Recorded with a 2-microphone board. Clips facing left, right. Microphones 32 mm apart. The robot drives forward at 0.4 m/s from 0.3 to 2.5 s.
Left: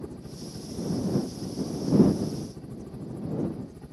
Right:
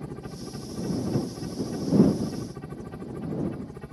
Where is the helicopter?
60° right (ahead or behind); by 3.9 s 50° right (ahead or behind).